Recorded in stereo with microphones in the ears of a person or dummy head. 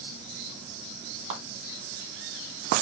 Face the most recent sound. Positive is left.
turn(degrees=-45)  # may be behind; listen again after turning